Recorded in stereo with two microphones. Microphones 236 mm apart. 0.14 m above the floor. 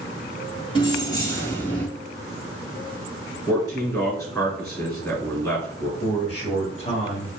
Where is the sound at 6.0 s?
30° left (ahead or behind), 1.2 m.